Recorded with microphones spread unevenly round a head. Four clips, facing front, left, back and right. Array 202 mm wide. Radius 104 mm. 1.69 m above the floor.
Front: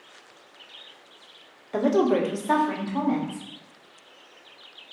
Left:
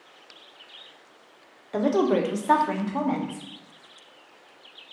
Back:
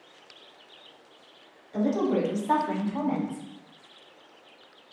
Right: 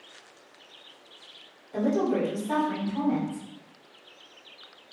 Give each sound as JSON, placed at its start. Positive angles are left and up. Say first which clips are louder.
{"t": 1.7, "sound": "a woman speaking", "louder": "left 3 dB, front 4 dB", "azimuth_deg": 35, "distance_m": 0.9}